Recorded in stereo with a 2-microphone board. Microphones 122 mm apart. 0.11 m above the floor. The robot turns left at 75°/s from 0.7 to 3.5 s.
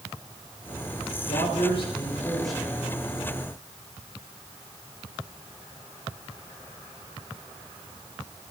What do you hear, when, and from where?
1.3 s a man speaking: 90° left, 6 m; by 2.8 s 25° right, 6 m